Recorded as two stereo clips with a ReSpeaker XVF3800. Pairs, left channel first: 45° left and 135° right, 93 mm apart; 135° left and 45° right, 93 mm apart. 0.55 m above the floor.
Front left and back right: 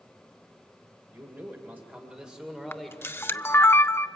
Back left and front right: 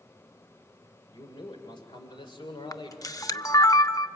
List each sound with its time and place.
1.1 s a man speaking: 165° left, 2.5 m; by 3.5 s 120° left, 2 m
2.7 s a camera shutter: 100° left, 0.6 m